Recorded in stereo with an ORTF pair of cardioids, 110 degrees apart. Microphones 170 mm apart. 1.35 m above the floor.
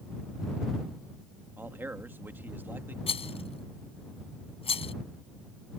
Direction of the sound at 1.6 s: 10° right.